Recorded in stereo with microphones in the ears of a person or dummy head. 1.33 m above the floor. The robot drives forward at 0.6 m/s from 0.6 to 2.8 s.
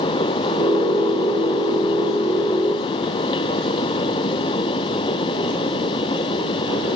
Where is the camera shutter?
No camera shutter in this recording.